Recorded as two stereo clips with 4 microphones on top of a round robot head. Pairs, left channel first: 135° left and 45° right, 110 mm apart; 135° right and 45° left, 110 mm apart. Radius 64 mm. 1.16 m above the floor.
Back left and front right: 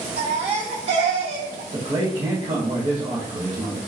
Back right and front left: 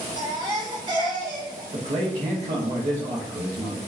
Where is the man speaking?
10° left, 1.3 m.